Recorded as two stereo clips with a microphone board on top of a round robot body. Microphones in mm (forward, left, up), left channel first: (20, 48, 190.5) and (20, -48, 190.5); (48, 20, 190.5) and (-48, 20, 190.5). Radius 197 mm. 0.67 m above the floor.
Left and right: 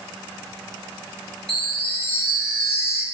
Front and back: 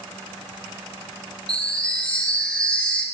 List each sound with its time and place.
1.5 s a chime: 75° left, 4.5 m